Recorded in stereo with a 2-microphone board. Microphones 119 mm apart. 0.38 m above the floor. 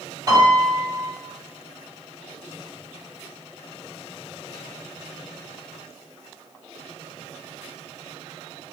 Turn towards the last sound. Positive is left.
turn(degrees=-35)  # may be behind; listen again after turning